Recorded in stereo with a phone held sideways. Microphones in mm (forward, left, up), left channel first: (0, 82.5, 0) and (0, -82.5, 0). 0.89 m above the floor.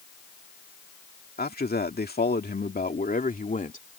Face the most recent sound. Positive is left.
turn(degrees=50)  # may be behind; listen again after turning